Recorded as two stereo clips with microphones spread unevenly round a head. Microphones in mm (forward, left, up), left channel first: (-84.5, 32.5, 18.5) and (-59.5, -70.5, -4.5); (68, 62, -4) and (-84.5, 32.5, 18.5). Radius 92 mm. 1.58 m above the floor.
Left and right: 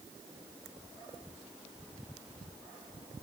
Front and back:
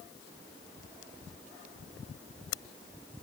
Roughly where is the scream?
I don't hear a scream.